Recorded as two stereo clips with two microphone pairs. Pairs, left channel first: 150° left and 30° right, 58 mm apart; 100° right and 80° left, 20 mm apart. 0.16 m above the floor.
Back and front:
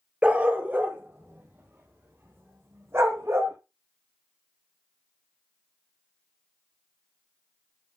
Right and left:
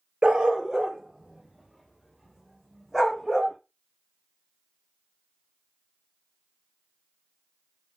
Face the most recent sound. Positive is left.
turn(degrees=10)